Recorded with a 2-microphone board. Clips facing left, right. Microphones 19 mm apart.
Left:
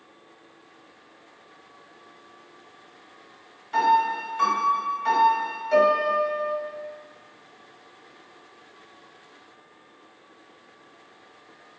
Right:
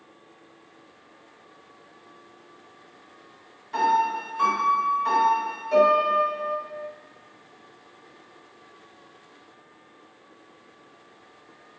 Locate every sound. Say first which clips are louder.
3.7 s a piano: left 2 dB; 10° left (ahead or behind), 0.8 m